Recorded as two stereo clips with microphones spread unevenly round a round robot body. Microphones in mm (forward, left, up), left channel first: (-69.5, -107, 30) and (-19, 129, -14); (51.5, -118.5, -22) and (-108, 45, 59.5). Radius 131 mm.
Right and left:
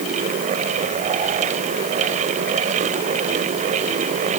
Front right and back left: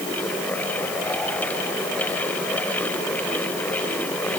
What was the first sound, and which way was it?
Only background noise.